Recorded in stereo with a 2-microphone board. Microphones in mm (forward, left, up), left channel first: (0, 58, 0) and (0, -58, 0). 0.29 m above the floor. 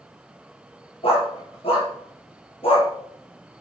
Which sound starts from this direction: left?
A dog barking, at 1.0 s.